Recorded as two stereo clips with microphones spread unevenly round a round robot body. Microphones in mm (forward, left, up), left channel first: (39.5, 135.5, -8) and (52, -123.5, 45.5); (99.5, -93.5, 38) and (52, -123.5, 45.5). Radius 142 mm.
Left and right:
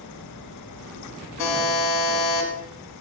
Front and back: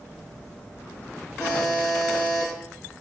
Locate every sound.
1.4 s a buzzer: 100° left, 0.8 m